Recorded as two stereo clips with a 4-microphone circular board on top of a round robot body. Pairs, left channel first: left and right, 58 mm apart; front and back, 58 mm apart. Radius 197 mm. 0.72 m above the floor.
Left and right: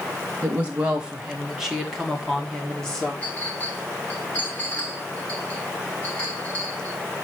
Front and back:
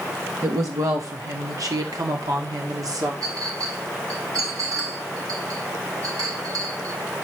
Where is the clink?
160° left, 4 m.